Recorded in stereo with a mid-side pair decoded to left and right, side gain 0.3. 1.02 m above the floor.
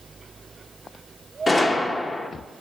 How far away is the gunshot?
About 0.9 m.